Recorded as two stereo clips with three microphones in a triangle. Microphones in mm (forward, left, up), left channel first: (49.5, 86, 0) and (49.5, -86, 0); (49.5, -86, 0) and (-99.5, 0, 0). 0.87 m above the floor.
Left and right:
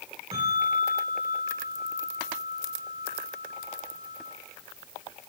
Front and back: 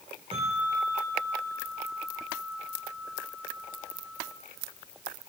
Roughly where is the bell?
Behind right.